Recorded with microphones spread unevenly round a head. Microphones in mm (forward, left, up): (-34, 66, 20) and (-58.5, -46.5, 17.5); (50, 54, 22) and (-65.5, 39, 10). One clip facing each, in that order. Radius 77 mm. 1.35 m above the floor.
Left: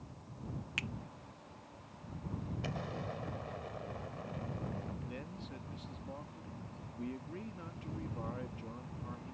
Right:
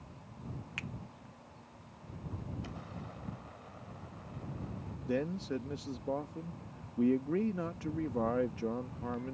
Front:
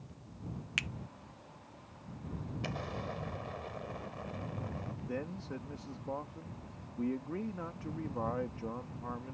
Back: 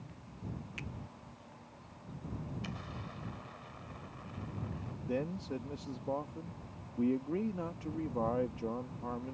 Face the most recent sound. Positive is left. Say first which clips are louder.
# right 12 dB, back 5 dB
turn(degrees=-100)